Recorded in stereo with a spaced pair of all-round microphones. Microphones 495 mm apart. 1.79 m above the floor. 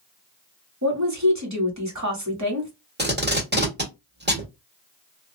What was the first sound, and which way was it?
A woman speaking, 35° right (ahead or behind).